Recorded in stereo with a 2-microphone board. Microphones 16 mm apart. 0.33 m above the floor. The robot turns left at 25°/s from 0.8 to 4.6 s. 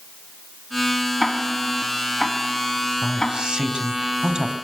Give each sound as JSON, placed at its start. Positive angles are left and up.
{"t": 1.2, "sound": "ticking", "side_deg": -5, "distance_m": 2.5}
{"t": 3.0, "sound": "a man speaking", "azimuth_deg": -75, "distance_m": 2.5}